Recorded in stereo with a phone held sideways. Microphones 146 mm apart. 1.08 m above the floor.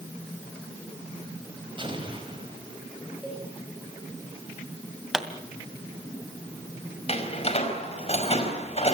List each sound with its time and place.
1.8 s an explosion: 30° right (ahead or behind), 5 m
3.2 s a cowbell: 10° right (ahead or behind), 4.5 m
5.1 s a pop: 5° right (ahead or behind), 2.5 m
7.1 s a door slam: 40° left (ahead or behind), 4.5 m